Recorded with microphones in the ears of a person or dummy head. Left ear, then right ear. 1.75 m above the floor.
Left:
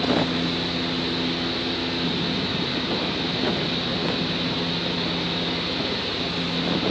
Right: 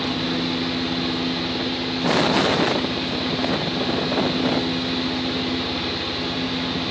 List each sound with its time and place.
0.0 s a fan: 40° right (ahead or behind), 1.7 m